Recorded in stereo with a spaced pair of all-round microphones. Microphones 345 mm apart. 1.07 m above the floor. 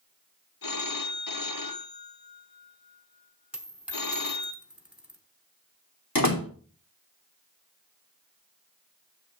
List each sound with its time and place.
0.6 s a phone ringing: 70° left (ahead or behind), 0.7 m
3.5 s a dropped coin: 5° right (ahead or behind), 0.9 m
6.2 s a door slam: 75° left (ahead or behind), 1.5 m